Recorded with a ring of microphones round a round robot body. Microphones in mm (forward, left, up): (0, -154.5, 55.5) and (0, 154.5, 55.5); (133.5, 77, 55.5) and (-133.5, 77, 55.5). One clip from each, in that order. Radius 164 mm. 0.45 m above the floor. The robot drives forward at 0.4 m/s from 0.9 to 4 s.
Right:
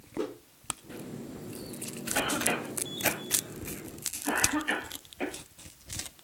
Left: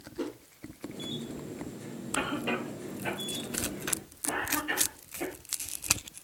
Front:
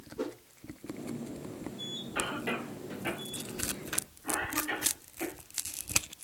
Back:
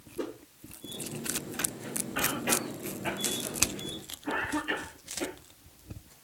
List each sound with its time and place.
0.2 s a whoosh: 65° right, 4.5 m
2.1 s a cough: 85° right, 3 m; by 5.3 s 100° right, 3 m